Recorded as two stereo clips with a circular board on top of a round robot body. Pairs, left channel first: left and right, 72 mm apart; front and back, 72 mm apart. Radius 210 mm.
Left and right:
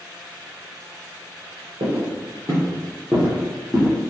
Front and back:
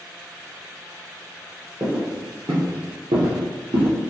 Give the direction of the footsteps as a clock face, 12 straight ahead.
4 o'clock.